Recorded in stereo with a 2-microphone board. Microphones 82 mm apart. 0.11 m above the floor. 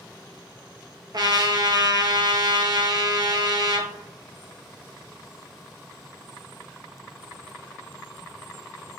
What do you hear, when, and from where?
1.1 s a trumpet: 55° right (ahead or behind), 0.5 m